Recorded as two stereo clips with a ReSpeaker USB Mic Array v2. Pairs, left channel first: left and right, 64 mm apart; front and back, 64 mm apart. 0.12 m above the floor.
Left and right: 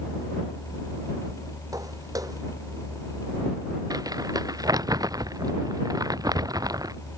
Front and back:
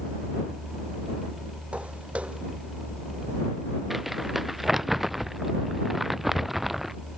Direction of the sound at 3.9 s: 95° right.